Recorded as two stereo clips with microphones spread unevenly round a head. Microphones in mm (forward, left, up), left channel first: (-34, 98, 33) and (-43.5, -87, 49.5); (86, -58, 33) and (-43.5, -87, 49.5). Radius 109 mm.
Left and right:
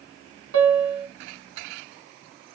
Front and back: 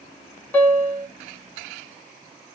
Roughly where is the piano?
Ahead right.